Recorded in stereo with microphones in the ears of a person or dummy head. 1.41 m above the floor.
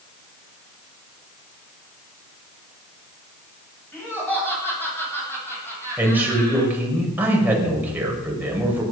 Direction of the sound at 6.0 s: 10° right (ahead or behind).